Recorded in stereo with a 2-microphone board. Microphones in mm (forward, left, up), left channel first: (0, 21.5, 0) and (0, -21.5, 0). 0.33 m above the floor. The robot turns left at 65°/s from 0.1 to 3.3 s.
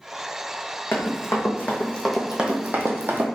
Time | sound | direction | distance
0.9 | running footsteps | 65° left (ahead or behind) | 1.1 m